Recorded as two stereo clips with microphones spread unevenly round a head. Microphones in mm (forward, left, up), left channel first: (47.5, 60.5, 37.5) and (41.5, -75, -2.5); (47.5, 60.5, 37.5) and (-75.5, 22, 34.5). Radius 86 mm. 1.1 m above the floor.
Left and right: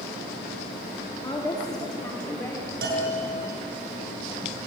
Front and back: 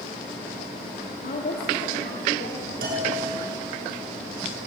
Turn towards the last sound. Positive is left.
turn(degrees=-130)